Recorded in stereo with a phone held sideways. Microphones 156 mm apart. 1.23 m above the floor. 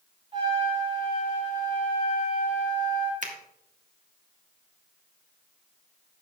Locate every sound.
0.3 s a trumpet: 35° right (ahead or behind), 3.5 m
3.2 s a finger snap: 55° right (ahead or behind), 1.6 m